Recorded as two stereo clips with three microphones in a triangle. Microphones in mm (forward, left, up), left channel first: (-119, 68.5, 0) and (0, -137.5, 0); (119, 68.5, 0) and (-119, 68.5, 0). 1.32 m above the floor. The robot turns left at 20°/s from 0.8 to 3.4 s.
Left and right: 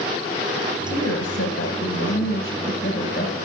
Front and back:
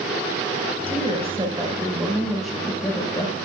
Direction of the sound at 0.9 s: 120° left.